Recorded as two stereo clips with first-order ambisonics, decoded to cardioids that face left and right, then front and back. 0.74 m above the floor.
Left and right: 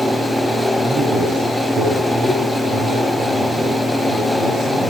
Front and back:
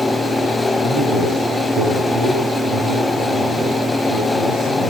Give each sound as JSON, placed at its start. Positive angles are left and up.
{"t": 0.8, "sound": "a man speaking", "azimuth_deg": -145, "distance_m": 9.0}